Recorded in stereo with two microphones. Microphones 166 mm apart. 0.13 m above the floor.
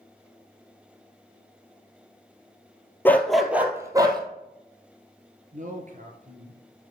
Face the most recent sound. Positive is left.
turn(degrees=-55)  # may be behind; listen again after turning